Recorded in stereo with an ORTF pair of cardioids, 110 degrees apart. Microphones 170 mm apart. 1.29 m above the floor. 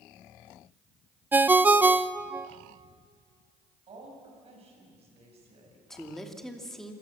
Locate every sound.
1.3 s a ringtone: 10° right, 0.5 m
3.9 s a woman speaking: 35° right, 7.5 m
5.9 s a woman speaking: 5° left, 2.5 m